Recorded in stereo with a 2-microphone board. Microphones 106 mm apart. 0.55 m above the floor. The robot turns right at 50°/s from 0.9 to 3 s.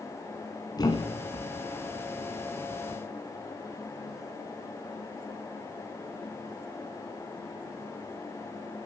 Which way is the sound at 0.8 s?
40° left (ahead or behind).